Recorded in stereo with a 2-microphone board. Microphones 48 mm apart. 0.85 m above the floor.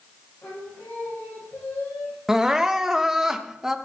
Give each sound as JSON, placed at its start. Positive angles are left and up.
{"t": 0.4, "sound": "singing", "side_deg": 45, "distance_m": 6.0}
{"t": 2.3, "sound": "crying", "side_deg": -10, "distance_m": 0.8}